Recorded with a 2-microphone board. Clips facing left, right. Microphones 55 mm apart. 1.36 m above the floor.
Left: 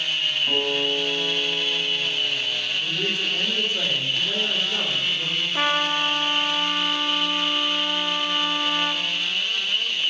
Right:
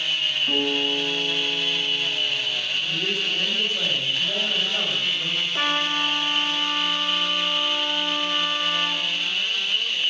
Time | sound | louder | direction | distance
0.5 | a guitar | even | 20° left (ahead or behind) | 3 m
2.8 | a man speaking | left 1 dB | 80° left | 4 m
5.5 | a trumpet | left 2 dB | 15° left (ahead or behind) | 0.6 m